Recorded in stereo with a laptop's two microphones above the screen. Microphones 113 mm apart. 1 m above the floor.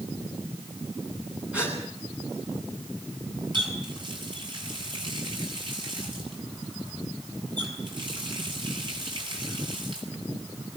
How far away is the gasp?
About 9.5 m.